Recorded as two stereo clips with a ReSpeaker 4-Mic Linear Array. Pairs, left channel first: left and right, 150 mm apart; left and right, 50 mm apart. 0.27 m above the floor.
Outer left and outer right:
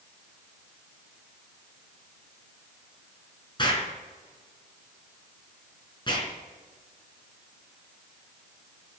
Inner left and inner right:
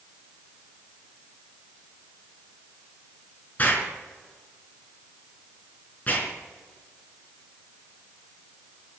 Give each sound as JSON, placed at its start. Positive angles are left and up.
{"t": 3.6, "sound": "an explosion", "side_deg": 35, "distance_m": 4.0}